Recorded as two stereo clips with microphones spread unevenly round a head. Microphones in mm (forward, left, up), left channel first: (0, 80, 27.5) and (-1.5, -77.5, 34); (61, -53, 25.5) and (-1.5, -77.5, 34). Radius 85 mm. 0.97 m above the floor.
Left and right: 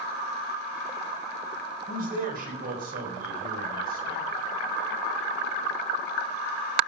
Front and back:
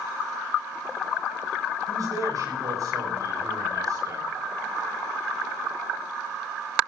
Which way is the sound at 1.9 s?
125° right.